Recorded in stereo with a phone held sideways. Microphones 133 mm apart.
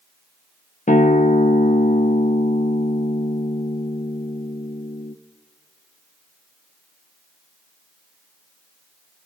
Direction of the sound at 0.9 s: 65° left (ahead or behind).